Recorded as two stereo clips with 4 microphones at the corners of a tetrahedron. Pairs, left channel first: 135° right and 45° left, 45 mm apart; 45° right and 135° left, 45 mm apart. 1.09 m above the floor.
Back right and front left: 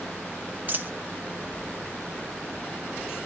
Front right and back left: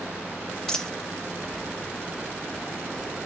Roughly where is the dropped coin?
Ahead left.